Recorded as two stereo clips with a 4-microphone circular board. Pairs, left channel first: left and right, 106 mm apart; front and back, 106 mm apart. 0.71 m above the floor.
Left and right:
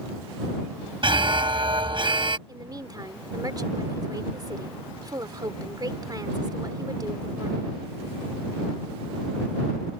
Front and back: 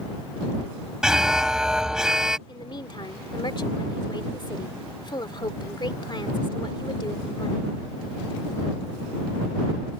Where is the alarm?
100° right.